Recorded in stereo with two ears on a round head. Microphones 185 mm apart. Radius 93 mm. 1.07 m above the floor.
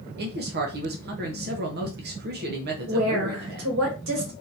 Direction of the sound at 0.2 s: 50° right (ahead or behind).